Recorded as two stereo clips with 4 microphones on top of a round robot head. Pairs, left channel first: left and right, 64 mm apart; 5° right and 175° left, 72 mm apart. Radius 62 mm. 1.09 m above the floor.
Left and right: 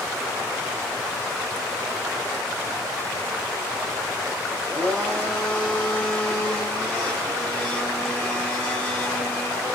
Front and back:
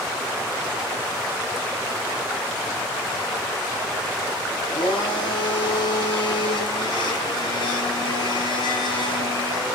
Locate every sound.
4.6 s a blender: straight ahead, 3 m